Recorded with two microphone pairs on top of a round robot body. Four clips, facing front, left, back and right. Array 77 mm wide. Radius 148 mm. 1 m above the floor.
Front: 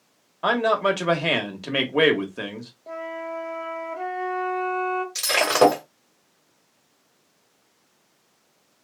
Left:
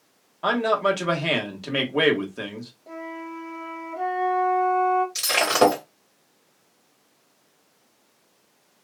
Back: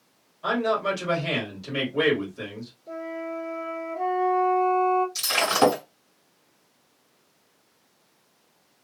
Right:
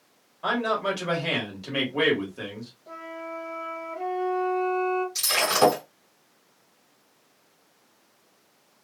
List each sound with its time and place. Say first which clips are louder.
0.4 s a man speaking: left 4 dB, front 4 dB; 20° left, 1.2 m
2.9 s a flute: left 2 dB, front 1 dB; 15° left, 1.0 m
5.2 s breaking glass: left 3 dB, front 3 dB; 30° left, 1.4 m